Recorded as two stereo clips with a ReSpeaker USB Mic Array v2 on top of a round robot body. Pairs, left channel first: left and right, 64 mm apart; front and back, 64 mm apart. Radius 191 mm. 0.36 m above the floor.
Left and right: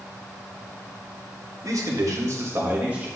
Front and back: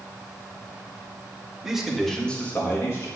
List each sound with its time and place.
1.6 s a man speaking: 100° right, 2 m; by 3.1 s 25° right, 1.8 m